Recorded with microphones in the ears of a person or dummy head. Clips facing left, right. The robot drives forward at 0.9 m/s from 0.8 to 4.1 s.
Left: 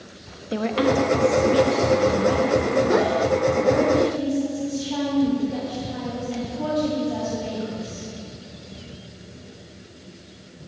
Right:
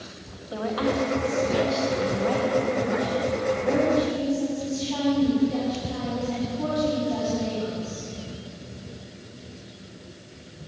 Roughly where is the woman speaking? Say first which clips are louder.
Left 5 dB; left.